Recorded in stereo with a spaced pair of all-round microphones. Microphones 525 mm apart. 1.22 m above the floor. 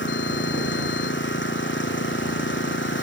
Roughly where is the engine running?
Left.